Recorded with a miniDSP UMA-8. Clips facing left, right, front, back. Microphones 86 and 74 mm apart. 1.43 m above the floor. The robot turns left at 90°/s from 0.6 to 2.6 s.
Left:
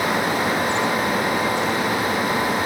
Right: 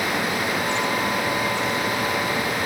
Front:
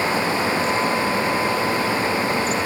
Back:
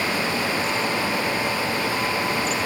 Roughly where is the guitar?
No guitar in this recording.